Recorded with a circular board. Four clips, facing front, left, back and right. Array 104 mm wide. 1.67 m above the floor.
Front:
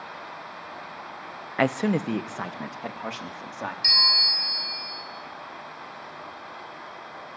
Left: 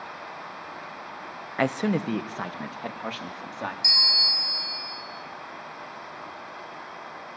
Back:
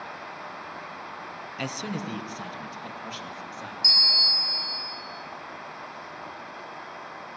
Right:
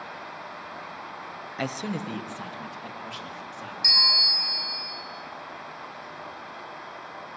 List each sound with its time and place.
1.6 s a man speaking: 25° left, 0.9 m; by 3.7 s 45° left, 4 m
3.8 s a bell: 15° right, 2 m